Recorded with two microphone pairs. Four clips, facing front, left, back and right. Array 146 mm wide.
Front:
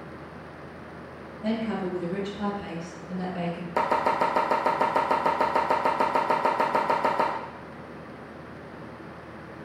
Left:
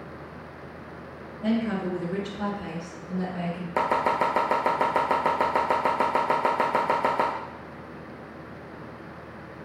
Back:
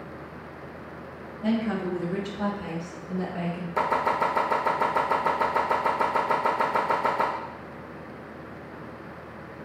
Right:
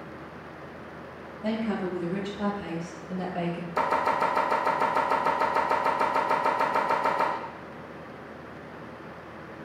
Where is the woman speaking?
115° left, 1.6 m; by 3.7 s 145° right, 1.2 m.